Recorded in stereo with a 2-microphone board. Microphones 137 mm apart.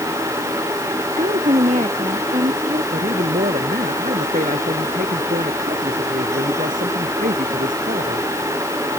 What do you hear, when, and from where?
1.2 s a woman speaking: 55° right (ahead or behind)
2.9 s a man speaking: 80° right